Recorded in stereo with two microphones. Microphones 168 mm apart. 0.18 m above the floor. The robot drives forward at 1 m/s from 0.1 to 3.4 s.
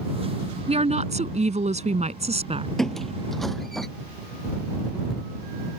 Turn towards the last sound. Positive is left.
turn(degrees=0)  # may be behind; listen again after turning